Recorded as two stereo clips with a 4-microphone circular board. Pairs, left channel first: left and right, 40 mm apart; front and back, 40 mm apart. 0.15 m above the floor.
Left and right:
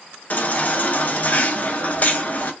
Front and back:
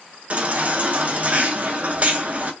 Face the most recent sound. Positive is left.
turn(degrees=130)